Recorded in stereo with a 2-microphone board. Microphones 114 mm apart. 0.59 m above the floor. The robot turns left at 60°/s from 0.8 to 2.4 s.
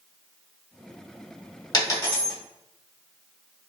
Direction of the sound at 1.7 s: 40° left (ahead or behind).